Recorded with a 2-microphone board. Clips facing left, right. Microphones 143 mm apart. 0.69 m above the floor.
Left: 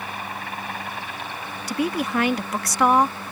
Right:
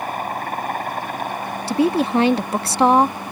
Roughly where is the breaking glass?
No breaking glass in this recording.